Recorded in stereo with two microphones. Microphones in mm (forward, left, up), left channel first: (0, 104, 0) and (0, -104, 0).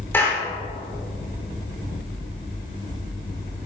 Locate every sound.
0.1 s a clap: 10° left (ahead or behind), 4 m